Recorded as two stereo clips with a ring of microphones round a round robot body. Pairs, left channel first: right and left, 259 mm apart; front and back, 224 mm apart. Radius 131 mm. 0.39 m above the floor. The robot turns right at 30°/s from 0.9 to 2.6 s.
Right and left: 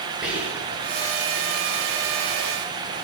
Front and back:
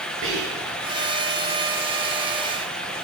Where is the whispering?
175° left, 2.5 m.